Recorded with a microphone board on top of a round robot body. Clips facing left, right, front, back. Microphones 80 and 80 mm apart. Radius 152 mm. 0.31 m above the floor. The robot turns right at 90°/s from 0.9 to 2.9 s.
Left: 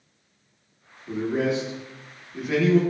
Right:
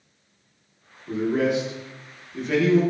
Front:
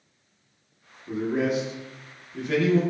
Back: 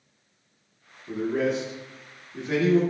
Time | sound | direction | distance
1.1 | a man speaking | 35° left | 1.1 m